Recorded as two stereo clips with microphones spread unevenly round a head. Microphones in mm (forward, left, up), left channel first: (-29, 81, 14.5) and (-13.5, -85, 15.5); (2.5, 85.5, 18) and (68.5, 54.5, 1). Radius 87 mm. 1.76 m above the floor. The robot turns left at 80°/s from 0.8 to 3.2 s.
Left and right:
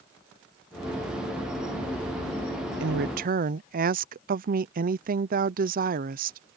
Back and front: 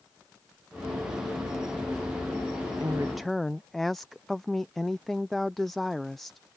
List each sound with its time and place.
2.8 s a woman speaking: 90° right; by 6.4 s 120° right